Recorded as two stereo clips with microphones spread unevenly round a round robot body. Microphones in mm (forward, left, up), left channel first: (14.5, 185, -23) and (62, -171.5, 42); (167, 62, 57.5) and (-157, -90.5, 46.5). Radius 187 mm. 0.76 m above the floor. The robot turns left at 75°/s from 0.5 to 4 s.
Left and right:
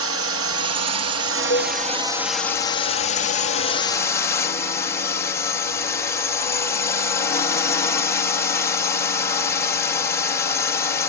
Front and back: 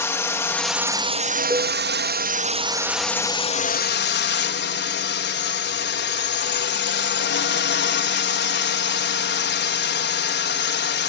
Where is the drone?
55° right; by 11.1 s 45° left.